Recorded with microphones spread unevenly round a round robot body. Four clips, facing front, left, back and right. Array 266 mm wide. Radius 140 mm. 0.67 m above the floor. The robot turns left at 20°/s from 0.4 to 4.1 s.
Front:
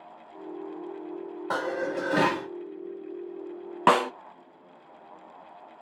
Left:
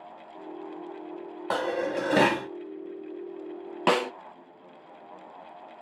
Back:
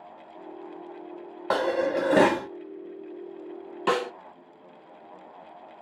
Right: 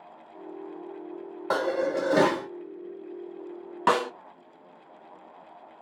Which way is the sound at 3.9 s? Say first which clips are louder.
Right 1 dB, front 5 dB; 30° left.